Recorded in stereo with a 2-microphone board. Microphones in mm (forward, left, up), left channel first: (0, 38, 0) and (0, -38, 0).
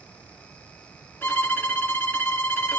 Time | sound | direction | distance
1.2 | a violin | 25° left (ahead or behind) | 2.0 m